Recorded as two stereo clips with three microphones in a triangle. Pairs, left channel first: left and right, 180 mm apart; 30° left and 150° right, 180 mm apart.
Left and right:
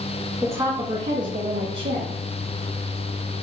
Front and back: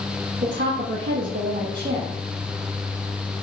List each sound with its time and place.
0.4 s a woman speaking: 170° right, 1.6 m; by 2.2 s 95° right, 1.7 m